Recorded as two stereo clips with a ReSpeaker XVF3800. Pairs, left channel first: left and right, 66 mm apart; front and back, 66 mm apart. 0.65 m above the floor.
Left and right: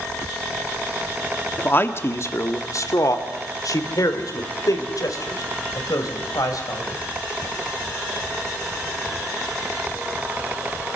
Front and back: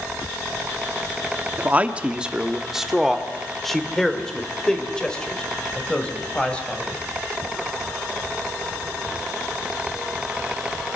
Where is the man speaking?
130° left, 1.4 m; by 7.0 s 75° left, 4.5 m.